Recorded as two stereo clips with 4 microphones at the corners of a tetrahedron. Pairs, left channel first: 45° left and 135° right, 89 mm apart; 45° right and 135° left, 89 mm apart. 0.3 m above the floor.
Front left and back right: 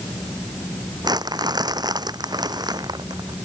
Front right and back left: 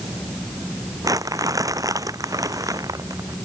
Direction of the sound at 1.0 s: 175° right.